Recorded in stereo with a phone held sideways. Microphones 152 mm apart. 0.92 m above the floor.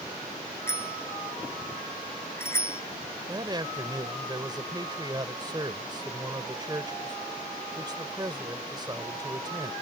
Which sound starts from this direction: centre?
A bicycle bell, at 0.7 s.